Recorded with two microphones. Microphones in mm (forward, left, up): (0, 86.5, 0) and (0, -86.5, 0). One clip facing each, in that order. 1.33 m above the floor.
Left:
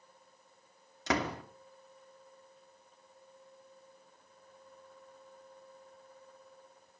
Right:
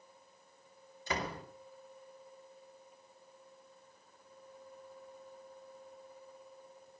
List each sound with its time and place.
1.1 s a door slam: 85° left, 2.5 m